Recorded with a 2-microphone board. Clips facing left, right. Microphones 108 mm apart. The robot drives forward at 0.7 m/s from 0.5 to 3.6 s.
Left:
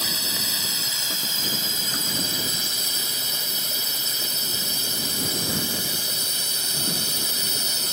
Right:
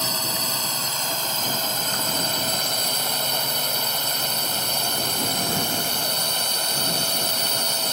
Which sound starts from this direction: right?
A drone, at 0.0 s.